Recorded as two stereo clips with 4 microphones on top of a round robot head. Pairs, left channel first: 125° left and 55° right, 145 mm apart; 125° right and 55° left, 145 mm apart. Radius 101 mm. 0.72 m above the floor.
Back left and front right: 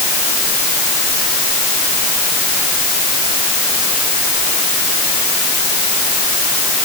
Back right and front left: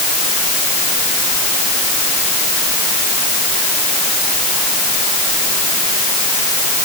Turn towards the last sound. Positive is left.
No sound to turn to.